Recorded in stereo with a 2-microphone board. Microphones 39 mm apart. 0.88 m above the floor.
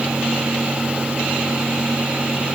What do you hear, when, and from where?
Only background noise.